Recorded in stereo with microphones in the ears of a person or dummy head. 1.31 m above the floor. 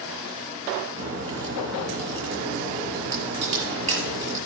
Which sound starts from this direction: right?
A crack, at 1.0 s.